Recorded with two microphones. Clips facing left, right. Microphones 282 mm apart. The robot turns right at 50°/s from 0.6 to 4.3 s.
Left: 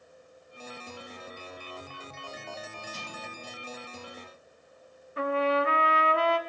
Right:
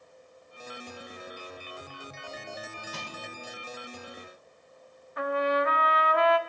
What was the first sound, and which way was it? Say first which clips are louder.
Crushing: right 1 dB; 75° right (ahead or behind).